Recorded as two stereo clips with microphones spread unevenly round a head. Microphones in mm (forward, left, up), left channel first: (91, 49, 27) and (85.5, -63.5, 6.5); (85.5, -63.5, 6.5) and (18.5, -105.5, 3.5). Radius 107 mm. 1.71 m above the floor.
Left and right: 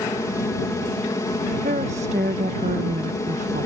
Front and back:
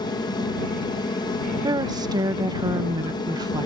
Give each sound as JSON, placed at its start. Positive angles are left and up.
{"t": 0.0, "sound": "an aircraft", "azimuth_deg": 25}
{"t": 1.6, "sound": "a woman speaking", "azimuth_deg": -135}